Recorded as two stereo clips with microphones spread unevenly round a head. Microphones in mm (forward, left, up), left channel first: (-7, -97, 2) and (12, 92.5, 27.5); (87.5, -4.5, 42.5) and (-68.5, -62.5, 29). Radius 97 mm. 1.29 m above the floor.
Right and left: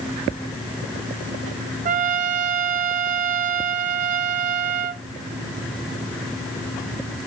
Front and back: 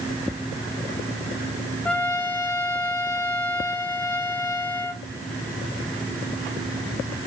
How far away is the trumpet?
About 1.0 m.